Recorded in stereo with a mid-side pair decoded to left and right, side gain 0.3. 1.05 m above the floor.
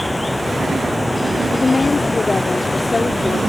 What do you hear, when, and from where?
0.0 s running water: 15° left
1.5 s a woman speaking: 40° left